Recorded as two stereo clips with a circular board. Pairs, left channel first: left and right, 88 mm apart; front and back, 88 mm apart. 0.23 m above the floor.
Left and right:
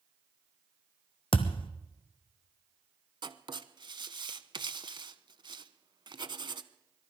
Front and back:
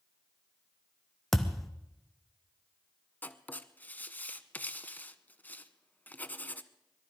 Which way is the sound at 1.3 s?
90° left.